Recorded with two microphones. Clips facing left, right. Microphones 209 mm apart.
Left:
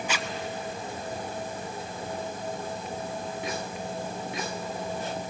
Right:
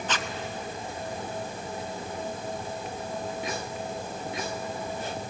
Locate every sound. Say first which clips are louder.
0.1 s a zipper: right 2 dB; 10° left (ahead or behind), 0.8 m